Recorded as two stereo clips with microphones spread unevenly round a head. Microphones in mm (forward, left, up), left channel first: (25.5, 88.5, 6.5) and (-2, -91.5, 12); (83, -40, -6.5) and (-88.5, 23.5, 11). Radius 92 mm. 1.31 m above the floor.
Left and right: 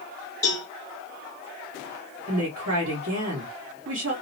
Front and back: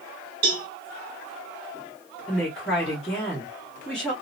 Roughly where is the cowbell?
Behind left.